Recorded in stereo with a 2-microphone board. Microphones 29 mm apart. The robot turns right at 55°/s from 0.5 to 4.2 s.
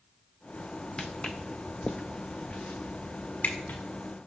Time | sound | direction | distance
1.0 | footsteps | 30° left (ahead or behind) | 0.8 m